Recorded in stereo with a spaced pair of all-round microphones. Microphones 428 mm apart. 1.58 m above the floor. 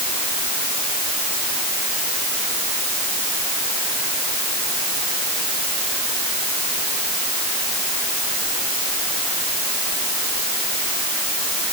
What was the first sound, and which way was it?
Only background noise.